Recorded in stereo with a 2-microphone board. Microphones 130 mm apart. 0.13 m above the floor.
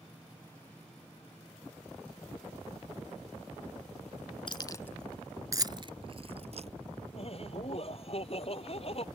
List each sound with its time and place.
4.5 s keys jangling: 40° left (ahead or behind); by 6.7 s 55° right (ahead or behind)
7.1 s laughter: 50° left (ahead or behind)